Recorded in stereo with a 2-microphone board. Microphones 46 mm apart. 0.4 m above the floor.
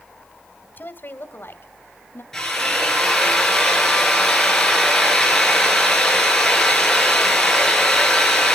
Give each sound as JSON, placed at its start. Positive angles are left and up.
{"t": 0.8, "sound": "a woman speaking", "side_deg": 50, "distance_m": 1.5}
{"t": 2.3, "sound": "a drill", "side_deg": 10, "distance_m": 6.0}